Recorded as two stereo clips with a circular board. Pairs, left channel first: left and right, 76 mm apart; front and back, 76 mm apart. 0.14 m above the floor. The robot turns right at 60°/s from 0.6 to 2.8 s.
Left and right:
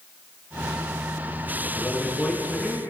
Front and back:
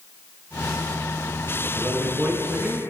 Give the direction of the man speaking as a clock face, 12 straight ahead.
8 o'clock.